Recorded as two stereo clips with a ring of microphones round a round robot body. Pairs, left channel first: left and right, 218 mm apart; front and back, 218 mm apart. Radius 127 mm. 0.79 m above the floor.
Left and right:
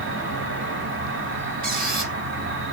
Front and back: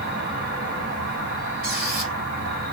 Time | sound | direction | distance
0.0 | an insect | 125° right | 2 m
1.6 | a squeak | 140° right | 1.9 m